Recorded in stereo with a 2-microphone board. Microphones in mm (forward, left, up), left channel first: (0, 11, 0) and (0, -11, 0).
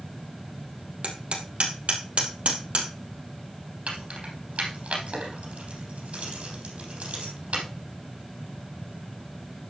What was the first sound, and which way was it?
Hammering, 60° right (ahead or behind).